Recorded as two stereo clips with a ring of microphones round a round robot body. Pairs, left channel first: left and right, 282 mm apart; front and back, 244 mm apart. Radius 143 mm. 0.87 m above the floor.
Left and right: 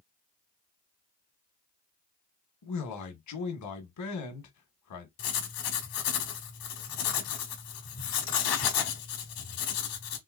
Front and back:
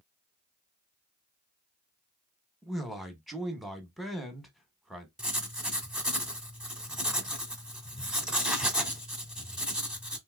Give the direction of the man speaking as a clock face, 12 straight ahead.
9 o'clock.